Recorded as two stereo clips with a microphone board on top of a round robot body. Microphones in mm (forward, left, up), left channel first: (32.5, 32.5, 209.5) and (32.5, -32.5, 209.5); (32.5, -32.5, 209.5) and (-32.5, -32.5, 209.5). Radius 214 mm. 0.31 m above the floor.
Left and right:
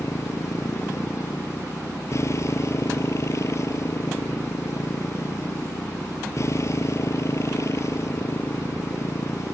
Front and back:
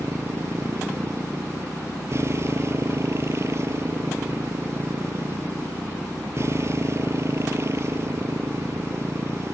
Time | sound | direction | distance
0.0 | a motorcycle | 135° left | ?